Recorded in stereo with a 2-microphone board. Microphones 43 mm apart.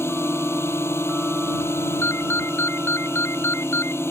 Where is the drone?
70° left (ahead or behind).